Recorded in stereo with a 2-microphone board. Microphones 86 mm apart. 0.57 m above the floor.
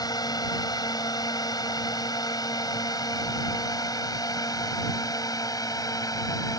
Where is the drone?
50° left (ahead or behind); by 6.6 s 45° left (ahead or behind).